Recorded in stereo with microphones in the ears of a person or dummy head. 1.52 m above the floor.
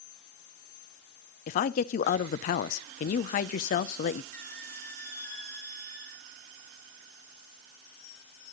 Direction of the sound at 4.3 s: 15° left (ahead or behind).